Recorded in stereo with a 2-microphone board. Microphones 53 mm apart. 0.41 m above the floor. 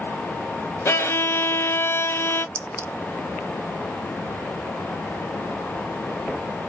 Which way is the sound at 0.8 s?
55° left (ahead or behind).